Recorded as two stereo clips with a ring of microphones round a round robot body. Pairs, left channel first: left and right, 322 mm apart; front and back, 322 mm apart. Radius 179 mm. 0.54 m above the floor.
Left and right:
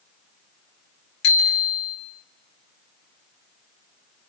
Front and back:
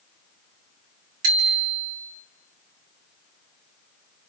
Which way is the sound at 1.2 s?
155° left.